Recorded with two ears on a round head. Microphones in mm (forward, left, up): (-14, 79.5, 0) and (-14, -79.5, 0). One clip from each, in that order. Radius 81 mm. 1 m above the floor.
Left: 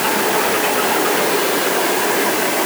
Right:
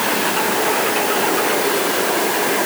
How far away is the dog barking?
No dog barking in this recording.